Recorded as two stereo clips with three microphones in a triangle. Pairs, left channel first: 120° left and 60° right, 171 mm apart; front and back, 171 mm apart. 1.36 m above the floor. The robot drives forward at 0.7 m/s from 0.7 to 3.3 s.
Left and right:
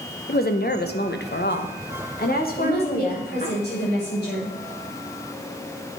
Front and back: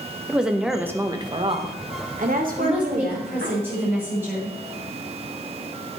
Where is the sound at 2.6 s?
95° left, 5.5 m; by 4.5 s 100° left, 5.5 m.